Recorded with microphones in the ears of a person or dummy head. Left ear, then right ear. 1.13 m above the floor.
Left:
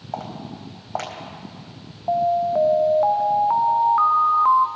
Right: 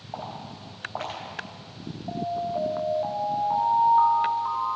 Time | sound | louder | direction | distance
0.1 | footsteps | left 4 dB | 70° left (ahead or behind) | 4.5 m
2.1 | an alarm | left 10 dB | 45° left (ahead or behind) | 0.6 m